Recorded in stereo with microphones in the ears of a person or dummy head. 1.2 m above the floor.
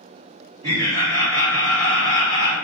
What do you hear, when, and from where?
0.6 s laughter: 75° right (ahead or behind), 1.6 m